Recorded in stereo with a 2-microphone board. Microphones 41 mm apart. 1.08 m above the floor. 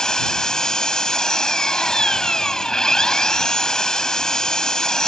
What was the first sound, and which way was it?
An engine running, 15° left (ahead or behind).